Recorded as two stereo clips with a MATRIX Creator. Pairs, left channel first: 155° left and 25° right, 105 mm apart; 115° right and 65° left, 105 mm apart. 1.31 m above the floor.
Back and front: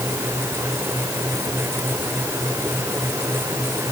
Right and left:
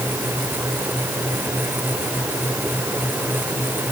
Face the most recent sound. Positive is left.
No sound to turn to.